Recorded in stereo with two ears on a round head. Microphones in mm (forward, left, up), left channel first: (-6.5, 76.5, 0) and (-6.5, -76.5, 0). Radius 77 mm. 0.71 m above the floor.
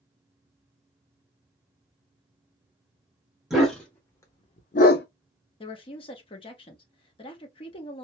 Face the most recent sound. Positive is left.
turn(degrees=30)  # may be behind; listen again after turning